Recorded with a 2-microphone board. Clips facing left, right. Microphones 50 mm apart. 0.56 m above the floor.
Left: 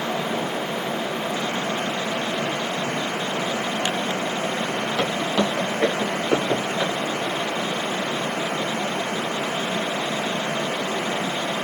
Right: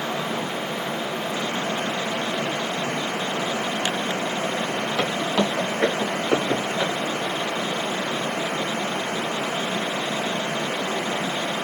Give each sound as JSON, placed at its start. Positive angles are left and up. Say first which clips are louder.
{"t": 5.0, "sound": "footsteps", "louder": "even", "side_deg": -5, "distance_m": 1.7}